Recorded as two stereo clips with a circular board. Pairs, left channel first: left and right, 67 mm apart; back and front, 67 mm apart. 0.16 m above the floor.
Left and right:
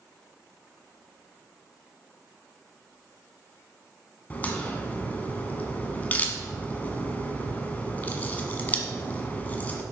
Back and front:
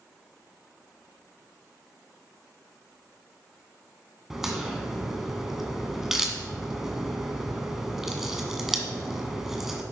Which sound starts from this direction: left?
A crack, at 4.3 s.